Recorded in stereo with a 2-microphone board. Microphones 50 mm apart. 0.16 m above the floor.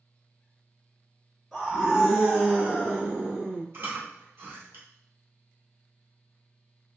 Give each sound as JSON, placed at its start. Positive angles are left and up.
{"t": 1.5, "sound": "a scream", "side_deg": -5, "distance_m": 1.2}
{"t": 3.7, "sound": "chewing", "side_deg": -50, "distance_m": 1.9}